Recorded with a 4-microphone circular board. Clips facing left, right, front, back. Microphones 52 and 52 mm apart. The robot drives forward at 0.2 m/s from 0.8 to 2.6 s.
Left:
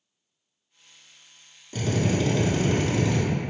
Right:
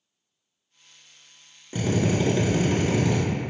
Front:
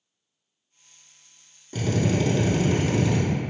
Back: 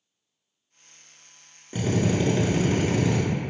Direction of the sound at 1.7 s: 130° right.